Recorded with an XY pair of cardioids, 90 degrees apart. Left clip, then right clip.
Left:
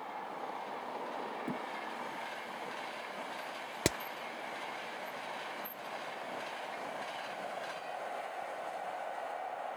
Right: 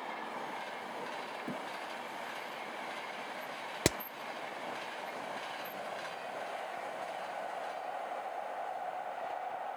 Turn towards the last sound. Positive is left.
turn(degrees=-10)